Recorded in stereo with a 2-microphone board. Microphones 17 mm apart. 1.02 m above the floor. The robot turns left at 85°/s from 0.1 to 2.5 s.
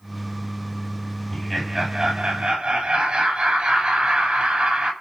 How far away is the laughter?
About 6 m.